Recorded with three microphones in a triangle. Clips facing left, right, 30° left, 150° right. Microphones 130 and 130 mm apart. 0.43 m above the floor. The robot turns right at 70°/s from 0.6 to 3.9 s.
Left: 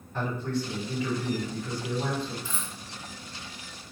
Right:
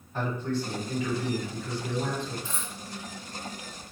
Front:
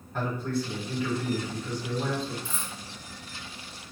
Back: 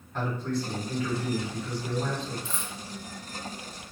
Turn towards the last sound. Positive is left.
turn(degrees=-60)